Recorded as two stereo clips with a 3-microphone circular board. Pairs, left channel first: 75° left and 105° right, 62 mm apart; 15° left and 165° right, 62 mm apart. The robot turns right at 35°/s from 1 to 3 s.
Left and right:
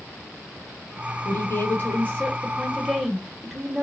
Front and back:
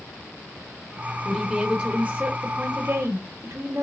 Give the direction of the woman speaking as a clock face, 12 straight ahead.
8 o'clock.